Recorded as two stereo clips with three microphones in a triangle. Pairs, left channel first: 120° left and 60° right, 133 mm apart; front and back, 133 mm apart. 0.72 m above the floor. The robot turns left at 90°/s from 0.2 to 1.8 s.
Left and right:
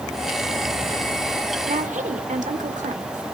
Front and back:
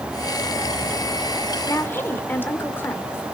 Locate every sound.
1.7 s a woman speaking: 60° right, 2 m; by 3.2 s 75° right, 2 m